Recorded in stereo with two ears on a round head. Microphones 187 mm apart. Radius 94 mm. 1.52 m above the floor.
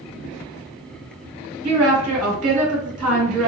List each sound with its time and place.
1.6 s a woman speaking: 90° right, 2.0 m